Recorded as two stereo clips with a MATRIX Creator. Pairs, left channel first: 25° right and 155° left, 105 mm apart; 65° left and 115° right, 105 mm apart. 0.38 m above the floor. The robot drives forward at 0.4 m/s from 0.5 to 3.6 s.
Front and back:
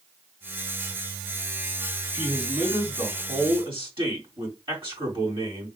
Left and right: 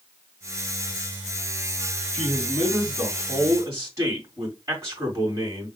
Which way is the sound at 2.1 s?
165° right.